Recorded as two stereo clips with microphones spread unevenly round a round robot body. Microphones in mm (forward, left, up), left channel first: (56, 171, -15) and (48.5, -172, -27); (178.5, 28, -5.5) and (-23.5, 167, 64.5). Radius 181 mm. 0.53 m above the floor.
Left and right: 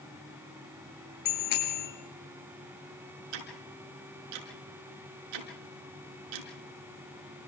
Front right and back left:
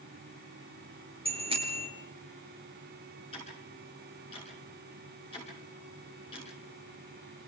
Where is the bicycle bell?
75° left, 7 m.